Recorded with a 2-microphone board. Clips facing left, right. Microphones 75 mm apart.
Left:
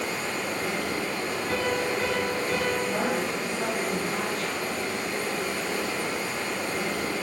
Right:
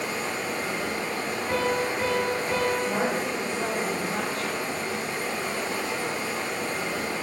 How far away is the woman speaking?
About 1.4 m.